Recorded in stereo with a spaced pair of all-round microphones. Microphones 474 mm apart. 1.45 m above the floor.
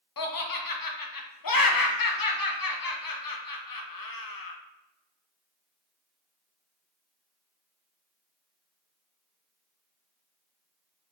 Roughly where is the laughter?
Left.